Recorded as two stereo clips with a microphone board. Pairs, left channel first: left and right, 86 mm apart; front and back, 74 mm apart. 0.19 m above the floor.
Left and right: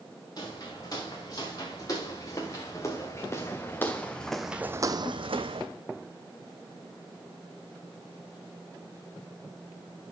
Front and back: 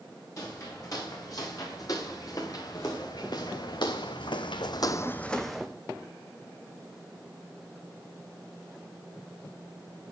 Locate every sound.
0.4 s footsteps: 45° left, 4 m; by 5.7 s 95° right, 0.9 m